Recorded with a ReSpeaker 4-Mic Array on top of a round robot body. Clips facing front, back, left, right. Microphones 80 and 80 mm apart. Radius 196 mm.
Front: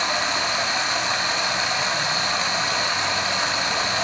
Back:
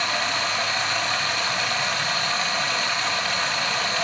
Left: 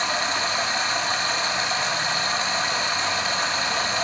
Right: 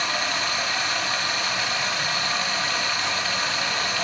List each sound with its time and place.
0.0 s running water: 50° left, 1.2 m